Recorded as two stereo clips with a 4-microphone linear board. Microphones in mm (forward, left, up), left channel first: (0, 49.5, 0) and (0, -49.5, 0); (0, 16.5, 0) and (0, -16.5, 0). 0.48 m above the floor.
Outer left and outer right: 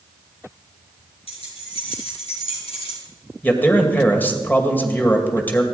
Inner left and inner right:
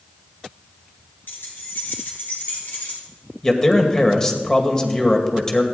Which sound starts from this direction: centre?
A man speaking, at 3.4 s.